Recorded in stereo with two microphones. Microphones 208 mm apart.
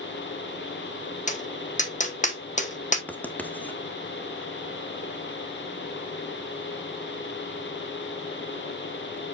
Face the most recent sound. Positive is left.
turn(degrees=5)  # may be behind; listen again after turning